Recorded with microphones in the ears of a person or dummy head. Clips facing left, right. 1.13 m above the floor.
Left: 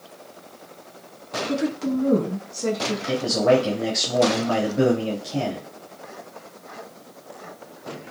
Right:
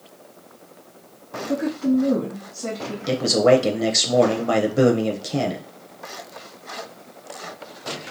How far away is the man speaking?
About 0.6 m.